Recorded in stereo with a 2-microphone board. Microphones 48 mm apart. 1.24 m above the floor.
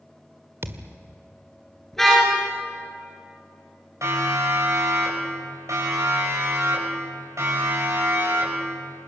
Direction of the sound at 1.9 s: 5° left (ahead or behind).